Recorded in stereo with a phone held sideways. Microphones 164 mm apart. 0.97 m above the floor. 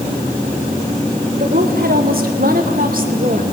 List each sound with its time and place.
1.4 s a woman speaking: 65° right (ahead or behind), 3 m; by 3.4 s 55° right (ahead or behind), 2.5 m